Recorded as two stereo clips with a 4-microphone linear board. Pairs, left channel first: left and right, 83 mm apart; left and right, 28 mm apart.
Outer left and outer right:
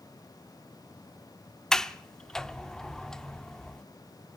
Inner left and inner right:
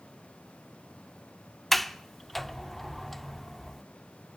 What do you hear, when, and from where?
1.7 s a sliding door: 5° left (ahead or behind), 0.6 m